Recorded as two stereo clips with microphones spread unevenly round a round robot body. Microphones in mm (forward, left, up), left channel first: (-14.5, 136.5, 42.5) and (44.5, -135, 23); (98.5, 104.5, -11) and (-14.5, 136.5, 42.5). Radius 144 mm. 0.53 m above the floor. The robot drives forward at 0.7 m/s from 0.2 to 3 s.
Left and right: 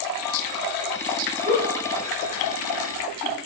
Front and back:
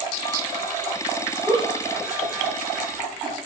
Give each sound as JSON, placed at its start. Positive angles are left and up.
{"t": 1.4, "sound": "a giggle", "azimuth_deg": -140, "distance_m": 2.5}